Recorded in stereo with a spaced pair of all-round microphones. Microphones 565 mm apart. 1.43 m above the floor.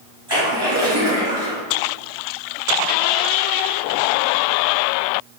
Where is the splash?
40° right (ahead or behind), 1.8 m.